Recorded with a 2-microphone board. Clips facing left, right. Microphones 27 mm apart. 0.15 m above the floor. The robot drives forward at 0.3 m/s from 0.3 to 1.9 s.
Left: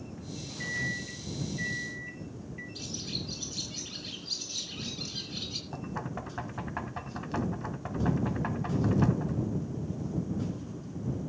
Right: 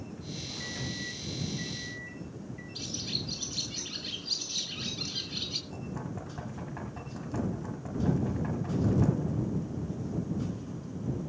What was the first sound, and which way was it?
A microwave, 25° left (ahead or behind).